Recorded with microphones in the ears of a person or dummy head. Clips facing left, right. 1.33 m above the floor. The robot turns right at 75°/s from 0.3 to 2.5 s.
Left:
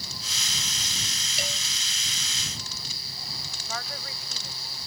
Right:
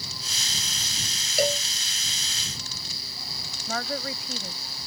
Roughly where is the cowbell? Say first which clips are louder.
Right 14 dB; right.